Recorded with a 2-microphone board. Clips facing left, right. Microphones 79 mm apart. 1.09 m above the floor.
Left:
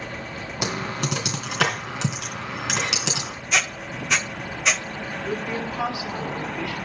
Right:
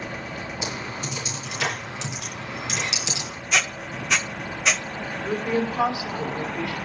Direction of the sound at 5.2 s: 20° right (ahead or behind).